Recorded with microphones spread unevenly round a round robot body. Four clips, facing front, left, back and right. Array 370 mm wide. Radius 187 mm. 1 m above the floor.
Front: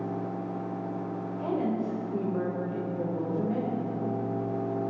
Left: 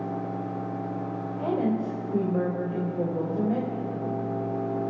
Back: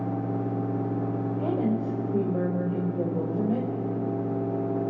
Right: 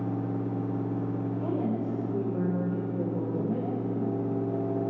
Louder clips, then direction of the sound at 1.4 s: Left 6 dB, back 1 dB; 105° left.